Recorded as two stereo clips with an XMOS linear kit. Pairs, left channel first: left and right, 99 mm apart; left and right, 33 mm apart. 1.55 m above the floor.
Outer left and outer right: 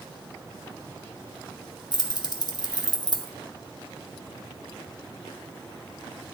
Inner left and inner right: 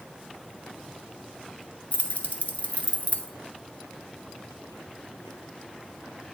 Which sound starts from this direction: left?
Keys jangling, at 1.9 s.